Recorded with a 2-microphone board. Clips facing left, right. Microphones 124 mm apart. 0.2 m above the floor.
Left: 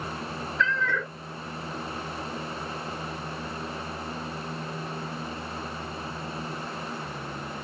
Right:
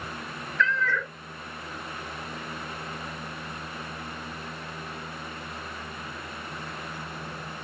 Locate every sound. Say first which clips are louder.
0.6 s a cat meowing: right 1 dB; 20° left (ahead or behind), 0.6 m